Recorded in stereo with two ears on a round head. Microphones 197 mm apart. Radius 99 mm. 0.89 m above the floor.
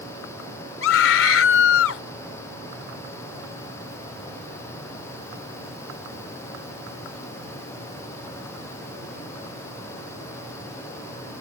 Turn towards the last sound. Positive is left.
turn(degrees=60)  # may be behind; listen again after turning